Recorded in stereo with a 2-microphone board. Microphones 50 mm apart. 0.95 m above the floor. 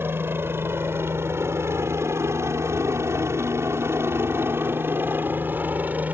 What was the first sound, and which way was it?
A helicopter, 50° right (ahead or behind).